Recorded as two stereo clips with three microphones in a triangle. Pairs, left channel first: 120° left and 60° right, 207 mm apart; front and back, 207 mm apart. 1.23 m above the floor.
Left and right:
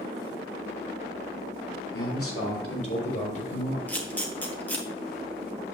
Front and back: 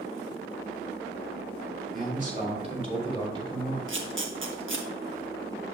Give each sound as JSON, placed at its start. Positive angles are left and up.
{"t": 1.9, "sound": "a man speaking", "azimuth_deg": 130, "distance_m": 2.5}
{"t": 3.9, "sound": "a camera shutter", "azimuth_deg": -155, "distance_m": 1.2}